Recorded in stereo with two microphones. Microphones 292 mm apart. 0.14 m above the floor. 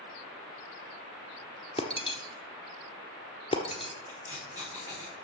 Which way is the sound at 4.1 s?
15° right (ahead or behind).